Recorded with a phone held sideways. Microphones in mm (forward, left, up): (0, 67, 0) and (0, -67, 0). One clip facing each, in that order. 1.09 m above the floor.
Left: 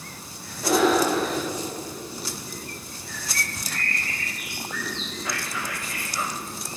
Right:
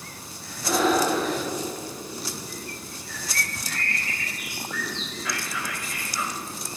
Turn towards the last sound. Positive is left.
turn(degrees=40)  # may be behind; listen again after turning